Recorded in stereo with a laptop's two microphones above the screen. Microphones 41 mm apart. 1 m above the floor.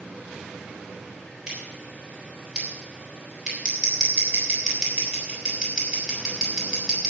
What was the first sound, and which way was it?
Scissors, 15° right (ahead or behind).